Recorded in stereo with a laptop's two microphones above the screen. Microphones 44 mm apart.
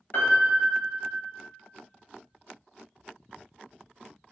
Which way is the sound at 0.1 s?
50° left (ahead or behind).